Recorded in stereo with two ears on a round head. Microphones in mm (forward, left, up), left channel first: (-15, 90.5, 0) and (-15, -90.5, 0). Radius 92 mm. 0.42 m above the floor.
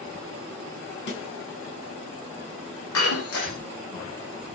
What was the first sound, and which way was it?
A snare drum, 60° left (ahead or behind).